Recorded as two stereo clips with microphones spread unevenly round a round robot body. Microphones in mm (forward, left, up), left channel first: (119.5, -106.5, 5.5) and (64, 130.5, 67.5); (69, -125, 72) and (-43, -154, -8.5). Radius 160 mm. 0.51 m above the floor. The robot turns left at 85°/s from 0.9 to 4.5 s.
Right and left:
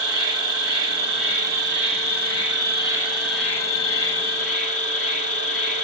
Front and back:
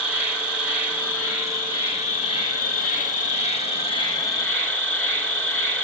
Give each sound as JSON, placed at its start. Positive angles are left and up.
{"t": 0.0, "sound": "an insect", "azimuth_deg": -175, "distance_m": 2.0}